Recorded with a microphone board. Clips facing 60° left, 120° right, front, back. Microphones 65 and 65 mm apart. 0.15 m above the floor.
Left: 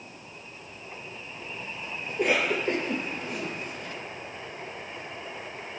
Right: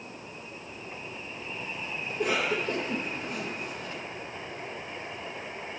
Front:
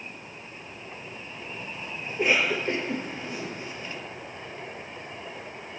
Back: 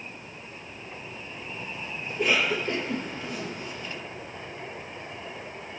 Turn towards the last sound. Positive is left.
turn(degrees=60)